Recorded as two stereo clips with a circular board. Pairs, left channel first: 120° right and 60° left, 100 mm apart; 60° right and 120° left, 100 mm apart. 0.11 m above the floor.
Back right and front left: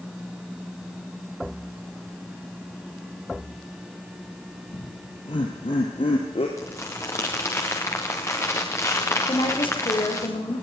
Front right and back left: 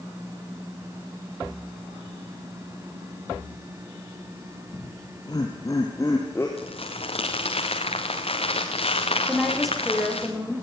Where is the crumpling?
60° right, 3.5 m.